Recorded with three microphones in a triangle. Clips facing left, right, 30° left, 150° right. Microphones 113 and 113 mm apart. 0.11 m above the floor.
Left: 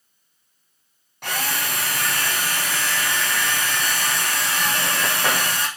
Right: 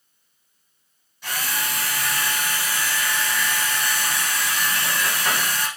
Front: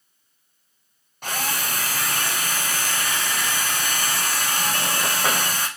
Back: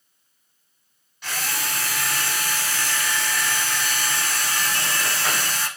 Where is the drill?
70° left, 4 m.